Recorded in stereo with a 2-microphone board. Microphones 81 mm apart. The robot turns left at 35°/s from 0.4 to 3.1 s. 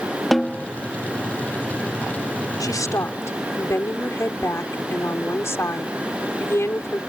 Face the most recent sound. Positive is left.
turn(degrees=35)  # may be behind; listen again after turning